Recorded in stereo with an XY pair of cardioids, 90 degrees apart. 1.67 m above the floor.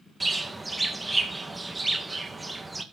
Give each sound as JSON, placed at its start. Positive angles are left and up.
{"t": 0.2, "sound": "a bird", "azimuth_deg": -20, "distance_m": 2.0}